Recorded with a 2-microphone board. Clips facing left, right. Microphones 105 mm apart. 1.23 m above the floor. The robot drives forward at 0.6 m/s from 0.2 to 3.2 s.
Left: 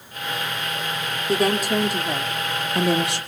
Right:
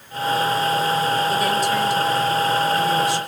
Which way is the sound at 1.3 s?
45° left (ahead or behind).